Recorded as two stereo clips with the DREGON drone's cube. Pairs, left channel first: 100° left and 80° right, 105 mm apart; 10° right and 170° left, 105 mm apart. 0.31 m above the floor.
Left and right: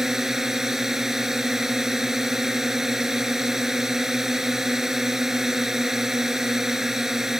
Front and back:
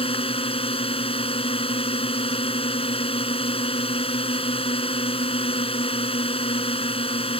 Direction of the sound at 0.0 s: 5° left.